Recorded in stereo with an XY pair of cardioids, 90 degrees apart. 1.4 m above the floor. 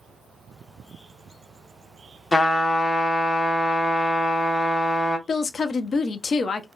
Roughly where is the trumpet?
Ahead left.